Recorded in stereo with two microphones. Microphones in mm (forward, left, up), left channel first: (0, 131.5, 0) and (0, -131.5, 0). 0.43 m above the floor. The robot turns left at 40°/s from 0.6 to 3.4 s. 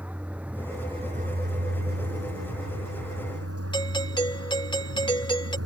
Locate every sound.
0.0 s a vehicle: 5° right; by 5.7 s 115° right
3.7 s a doorbell: 15° left (ahead or behind)